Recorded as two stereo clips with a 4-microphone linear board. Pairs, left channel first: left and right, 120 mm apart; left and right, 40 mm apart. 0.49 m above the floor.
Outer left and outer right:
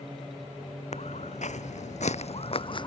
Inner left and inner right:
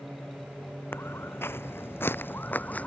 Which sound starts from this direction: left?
Footsteps, at 0.9 s.